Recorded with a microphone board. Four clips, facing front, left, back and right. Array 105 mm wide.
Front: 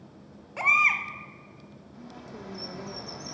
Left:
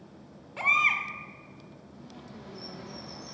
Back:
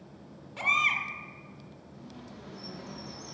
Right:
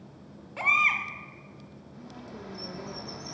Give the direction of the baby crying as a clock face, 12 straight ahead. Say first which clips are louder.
Even, front 4 dB; 12 o'clock.